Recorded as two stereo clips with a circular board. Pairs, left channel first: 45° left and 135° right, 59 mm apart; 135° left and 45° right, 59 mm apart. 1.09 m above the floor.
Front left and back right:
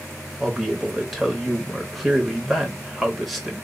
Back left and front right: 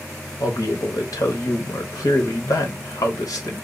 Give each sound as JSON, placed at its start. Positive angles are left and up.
{"t": 0.4, "sound": "a man speaking", "azimuth_deg": 135, "distance_m": 0.8}